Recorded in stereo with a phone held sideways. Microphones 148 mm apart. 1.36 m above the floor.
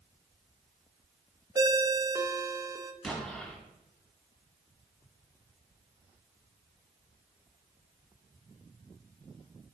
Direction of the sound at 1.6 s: 25° right (ahead or behind).